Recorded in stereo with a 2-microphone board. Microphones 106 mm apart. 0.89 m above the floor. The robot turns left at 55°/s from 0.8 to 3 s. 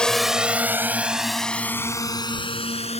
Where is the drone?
5° left (ahead or behind); by 3.0 s 75° left (ahead or behind).